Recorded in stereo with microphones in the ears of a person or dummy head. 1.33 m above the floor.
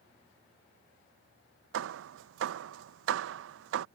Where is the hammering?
75° right (ahead or behind).